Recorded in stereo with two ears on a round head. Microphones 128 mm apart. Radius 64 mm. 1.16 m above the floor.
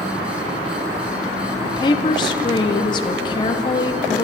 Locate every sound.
1.6 s a woman speaking: 30° left (ahead or behind), 0.7 m